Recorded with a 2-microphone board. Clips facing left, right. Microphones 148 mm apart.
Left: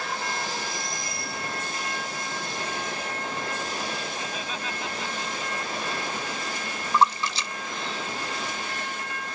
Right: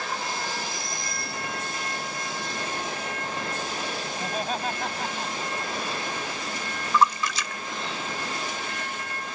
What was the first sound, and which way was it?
Laughter, 45° right (ahead or behind).